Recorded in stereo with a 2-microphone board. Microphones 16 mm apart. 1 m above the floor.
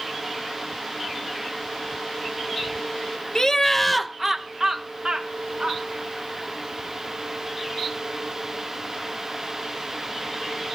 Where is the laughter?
35° left (ahead or behind), 0.9 m; by 5.8 s 65° right (ahead or behind), 1.6 m.